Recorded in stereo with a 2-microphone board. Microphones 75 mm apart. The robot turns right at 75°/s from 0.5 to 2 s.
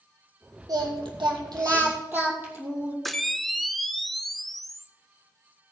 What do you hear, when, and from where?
0.7 s singing: 125° right, 2.5 m; by 3.0 s 25° right, 2.5 m
3.0 s a camera shutter: centre (ahead or behind), 0.6 m